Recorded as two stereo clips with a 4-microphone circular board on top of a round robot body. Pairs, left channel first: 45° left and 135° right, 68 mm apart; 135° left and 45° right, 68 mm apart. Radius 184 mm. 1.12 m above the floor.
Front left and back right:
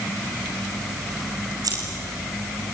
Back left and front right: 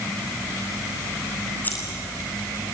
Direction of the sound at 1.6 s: 160° right.